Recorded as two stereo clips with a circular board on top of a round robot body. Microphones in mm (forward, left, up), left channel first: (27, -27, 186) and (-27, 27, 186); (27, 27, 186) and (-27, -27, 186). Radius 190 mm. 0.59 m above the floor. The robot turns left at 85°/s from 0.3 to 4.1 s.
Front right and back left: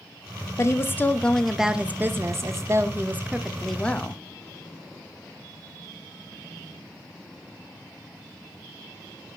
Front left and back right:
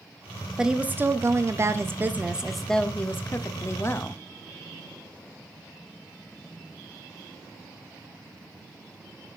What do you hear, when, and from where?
0.6 s a woman speaking: 55° right, 1.0 m; by 4.2 s 5° left, 1.0 m